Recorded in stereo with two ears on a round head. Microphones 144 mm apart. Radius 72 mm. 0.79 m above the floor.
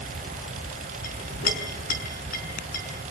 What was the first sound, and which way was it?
A clink, 55° left (ahead or behind).